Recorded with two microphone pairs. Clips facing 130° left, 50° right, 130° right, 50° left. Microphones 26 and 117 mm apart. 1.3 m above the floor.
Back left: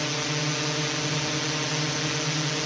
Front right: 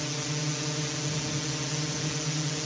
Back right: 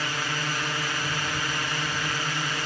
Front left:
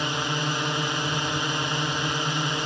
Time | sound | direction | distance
0.0 | a drone | 100° left | ?